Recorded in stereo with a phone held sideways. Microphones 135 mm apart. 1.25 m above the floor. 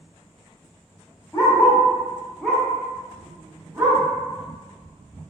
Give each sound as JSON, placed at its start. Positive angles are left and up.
{"t": 1.3, "sound": "a dog barking", "side_deg": 20, "distance_m": 0.9}